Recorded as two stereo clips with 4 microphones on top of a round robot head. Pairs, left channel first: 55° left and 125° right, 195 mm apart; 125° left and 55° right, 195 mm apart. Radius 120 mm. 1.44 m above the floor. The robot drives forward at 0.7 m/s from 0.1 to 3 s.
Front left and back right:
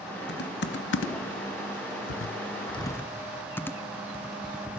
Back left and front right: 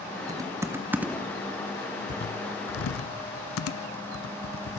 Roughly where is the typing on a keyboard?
Ahead.